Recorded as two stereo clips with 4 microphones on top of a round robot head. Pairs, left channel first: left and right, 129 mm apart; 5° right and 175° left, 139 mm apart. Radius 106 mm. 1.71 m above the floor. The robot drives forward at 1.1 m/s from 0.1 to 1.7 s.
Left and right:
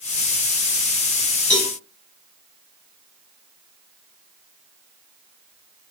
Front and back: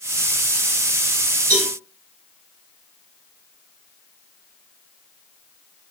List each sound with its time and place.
1.5 s a cowbell: 170° left, 3 m